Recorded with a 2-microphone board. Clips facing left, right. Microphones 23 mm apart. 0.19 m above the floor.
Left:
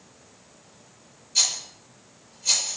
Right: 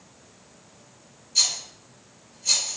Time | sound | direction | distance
1.4 | a rattle | 15° left (ahead or behind) | 4 m